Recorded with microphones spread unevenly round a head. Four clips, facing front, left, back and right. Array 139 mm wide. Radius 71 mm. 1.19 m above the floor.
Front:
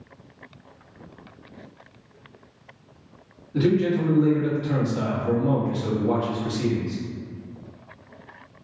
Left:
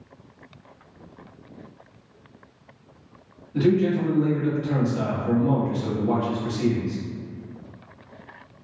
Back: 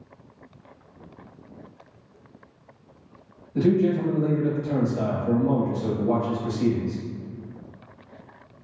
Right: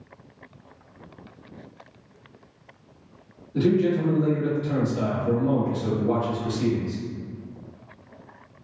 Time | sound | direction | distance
3.5 | a man speaking | straight ahead | 2.0 m